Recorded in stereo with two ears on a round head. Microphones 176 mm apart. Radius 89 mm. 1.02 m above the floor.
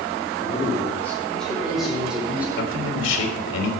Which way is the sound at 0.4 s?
30° left (ahead or behind).